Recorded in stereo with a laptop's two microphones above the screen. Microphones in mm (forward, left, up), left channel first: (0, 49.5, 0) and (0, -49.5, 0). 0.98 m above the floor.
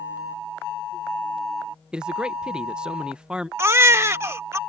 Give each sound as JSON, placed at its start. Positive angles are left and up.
{"t": 1.9, "sound": "a man speaking", "side_deg": -10}
{"t": 3.6, "sound": "a baby crying", "side_deg": -25}